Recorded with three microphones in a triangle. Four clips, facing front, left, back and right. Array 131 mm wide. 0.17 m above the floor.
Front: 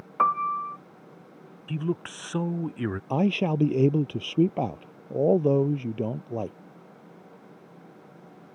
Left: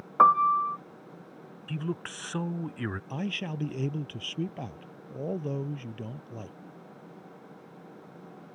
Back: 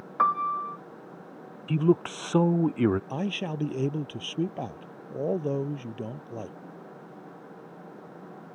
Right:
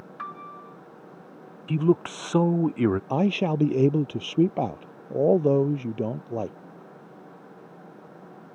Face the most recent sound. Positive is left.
turn(degrees=-65)